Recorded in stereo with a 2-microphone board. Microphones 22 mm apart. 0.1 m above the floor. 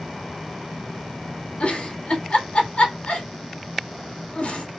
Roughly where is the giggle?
Left.